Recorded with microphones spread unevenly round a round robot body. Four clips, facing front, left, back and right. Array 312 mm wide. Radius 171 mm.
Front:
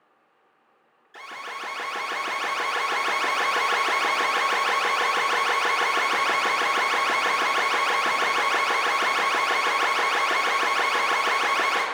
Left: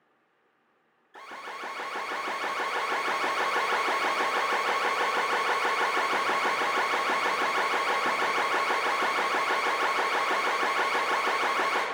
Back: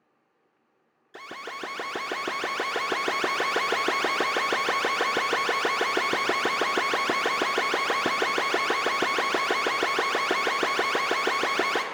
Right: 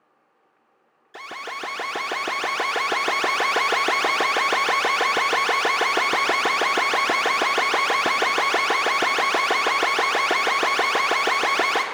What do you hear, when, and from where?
1.1 s an alarm: 150° right, 0.6 m